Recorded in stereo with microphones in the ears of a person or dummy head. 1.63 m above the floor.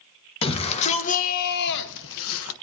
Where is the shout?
30° left (ahead or behind), 2 m; by 2.5 s 85° left, 1.6 m.